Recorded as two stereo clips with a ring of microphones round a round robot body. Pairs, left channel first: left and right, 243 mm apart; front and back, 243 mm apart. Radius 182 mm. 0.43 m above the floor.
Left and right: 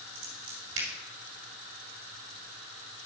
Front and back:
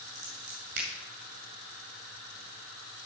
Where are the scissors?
130° right, 2 m.